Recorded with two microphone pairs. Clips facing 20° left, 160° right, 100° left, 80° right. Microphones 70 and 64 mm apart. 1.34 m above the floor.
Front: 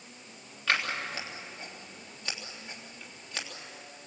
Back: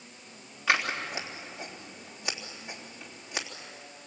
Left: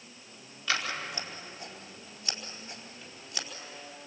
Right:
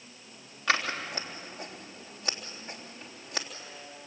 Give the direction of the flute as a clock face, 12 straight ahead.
I don't hear a flute.